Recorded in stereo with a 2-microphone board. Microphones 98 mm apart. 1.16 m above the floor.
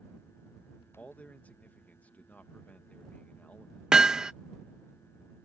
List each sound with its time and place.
1.0 s a man speaking: 15° left (ahead or behind)
3.9 s hammering: 10° right (ahead or behind)